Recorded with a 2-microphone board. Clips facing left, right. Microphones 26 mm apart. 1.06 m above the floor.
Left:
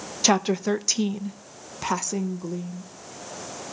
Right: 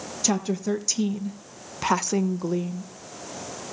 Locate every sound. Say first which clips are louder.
0.2 s a woman speaking: left 4 dB; 40° left (ahead or behind), 1.1 m; by 2.9 s 45° right (ahead or behind), 1.1 m